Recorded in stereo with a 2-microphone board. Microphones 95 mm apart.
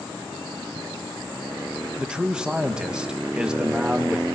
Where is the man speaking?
10° right (ahead or behind), 1.4 m.